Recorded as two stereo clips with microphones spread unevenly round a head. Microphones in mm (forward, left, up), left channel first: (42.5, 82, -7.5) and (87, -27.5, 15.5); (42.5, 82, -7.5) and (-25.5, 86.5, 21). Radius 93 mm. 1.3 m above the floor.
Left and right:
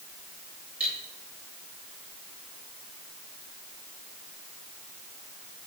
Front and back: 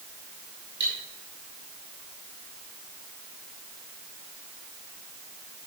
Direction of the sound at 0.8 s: 150° right.